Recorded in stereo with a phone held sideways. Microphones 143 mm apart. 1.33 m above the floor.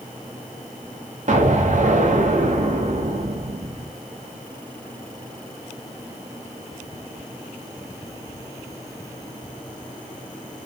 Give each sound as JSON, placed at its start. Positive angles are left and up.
{"t": 1.3, "sound": "an explosion", "side_deg": -60, "distance_m": 0.6}